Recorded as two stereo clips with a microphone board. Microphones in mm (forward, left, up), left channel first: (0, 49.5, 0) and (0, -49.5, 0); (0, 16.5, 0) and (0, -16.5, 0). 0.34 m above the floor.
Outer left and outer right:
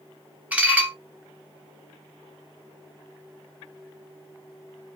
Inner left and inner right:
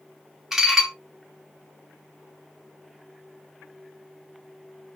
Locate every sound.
0.5 s dishes clattering: 15° right (ahead or behind), 0.8 m